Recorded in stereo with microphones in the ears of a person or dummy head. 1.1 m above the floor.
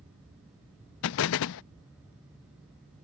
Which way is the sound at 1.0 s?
60° left (ahead or behind).